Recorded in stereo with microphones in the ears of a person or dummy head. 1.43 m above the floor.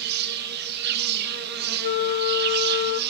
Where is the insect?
60° right (ahead or behind), 2 m.